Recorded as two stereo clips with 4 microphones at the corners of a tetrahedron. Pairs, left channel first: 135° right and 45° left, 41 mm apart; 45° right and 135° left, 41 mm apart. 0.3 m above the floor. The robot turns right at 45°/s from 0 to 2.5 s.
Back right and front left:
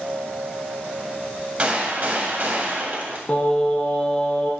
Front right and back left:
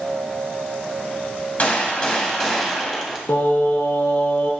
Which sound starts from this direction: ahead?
A gunshot, at 1.6 s.